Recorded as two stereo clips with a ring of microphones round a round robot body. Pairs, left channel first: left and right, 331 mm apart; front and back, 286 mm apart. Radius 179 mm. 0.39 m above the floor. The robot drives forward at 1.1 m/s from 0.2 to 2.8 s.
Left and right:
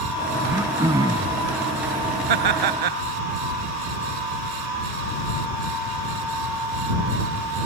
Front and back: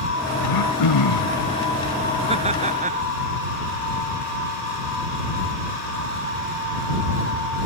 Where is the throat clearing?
10° right.